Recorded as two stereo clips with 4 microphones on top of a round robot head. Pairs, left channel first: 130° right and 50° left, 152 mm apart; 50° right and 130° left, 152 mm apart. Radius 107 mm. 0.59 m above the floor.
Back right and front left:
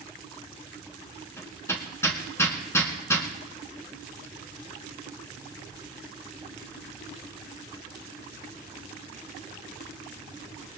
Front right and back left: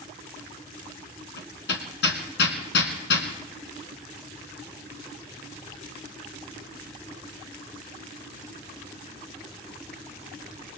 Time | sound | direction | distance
1.4 | hammering | 55° right | 1.6 m